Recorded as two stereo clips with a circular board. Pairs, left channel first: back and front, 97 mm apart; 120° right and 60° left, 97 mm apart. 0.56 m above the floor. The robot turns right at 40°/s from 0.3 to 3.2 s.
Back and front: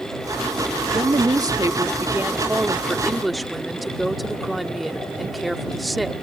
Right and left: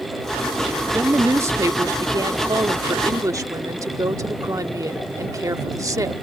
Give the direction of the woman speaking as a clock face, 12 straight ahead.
12 o'clock.